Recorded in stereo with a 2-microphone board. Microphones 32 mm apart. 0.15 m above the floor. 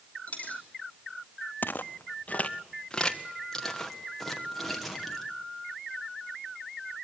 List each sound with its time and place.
0.3 s a dropped coin: 45° left (ahead or behind), 2.5 m
1.6 s footsteps: 85° left, 0.9 m; by 5.2 s centre (ahead or behind), 3.5 m